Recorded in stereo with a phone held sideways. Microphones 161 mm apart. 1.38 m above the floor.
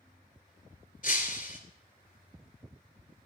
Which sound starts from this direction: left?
Breaking glass, at 1.0 s.